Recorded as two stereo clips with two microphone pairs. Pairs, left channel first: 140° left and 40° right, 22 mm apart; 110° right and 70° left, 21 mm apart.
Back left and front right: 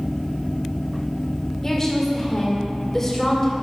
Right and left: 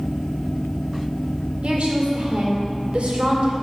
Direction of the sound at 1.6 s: 75° left.